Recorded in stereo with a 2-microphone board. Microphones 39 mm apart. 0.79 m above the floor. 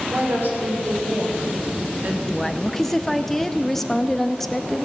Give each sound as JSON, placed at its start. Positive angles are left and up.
{"t": 0.1, "sound": "a woman speaking", "side_deg": -55, "distance_m": 3.0}
{"t": 2.3, "sound": "a woman speaking", "side_deg": 10, "distance_m": 0.6}